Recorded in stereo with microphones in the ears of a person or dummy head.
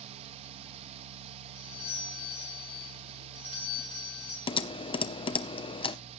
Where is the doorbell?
35° left (ahead or behind), 1.9 m.